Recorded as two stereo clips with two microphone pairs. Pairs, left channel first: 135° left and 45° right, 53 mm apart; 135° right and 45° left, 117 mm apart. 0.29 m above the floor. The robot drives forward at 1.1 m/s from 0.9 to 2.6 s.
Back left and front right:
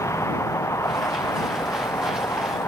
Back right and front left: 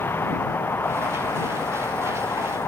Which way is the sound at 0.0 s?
155° left.